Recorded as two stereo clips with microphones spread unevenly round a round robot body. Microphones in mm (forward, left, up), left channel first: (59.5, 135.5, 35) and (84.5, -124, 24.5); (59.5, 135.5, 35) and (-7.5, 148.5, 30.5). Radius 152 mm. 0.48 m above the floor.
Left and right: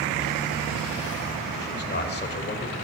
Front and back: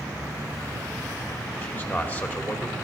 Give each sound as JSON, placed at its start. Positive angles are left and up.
{"t": 1.6, "sound": "a man speaking", "azimuth_deg": 50, "distance_m": 2.5}